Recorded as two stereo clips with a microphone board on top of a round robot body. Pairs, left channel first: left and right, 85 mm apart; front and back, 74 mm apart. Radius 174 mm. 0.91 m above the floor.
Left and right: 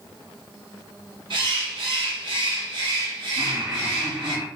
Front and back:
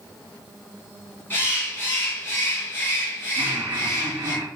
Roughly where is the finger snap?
I don't hear a finger snap.